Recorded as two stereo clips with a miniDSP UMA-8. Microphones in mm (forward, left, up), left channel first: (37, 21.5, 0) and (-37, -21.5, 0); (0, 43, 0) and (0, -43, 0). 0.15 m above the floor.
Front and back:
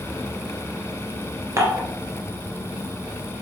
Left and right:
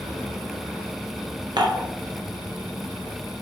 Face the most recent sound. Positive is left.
turn(degrees=-100)